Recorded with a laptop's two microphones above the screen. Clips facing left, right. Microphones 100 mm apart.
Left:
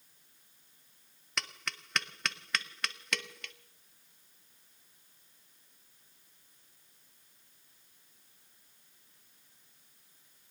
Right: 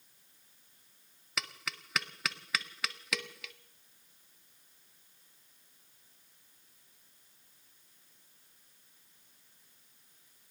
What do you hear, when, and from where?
1.4 s tapping: centre (ahead or behind), 0.5 m